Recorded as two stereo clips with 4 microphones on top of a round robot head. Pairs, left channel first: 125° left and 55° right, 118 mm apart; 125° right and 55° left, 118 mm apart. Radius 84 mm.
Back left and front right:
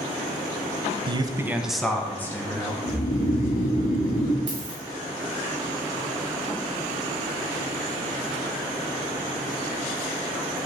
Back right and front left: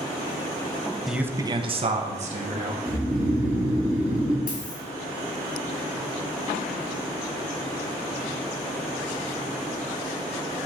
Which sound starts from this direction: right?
A dropped coin, at 4.5 s.